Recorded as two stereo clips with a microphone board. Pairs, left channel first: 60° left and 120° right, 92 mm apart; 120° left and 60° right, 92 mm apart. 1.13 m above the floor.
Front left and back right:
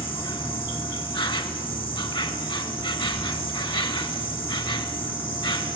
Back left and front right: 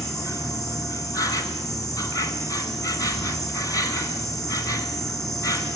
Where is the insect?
75° left, 2 m.